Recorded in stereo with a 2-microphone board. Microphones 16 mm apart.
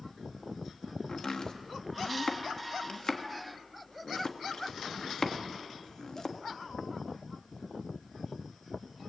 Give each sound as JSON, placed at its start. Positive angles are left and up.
{"t": 1.1, "sound": "chopping", "side_deg": 50, "distance_m": 1.6}